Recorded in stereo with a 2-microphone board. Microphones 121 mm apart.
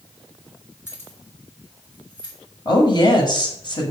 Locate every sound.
0.9 s keys jangling: 20° left (ahead or behind), 2.5 m; by 2.4 s 40° left (ahead or behind), 3 m
2.6 s a woman speaking: 40° left (ahead or behind), 1.8 m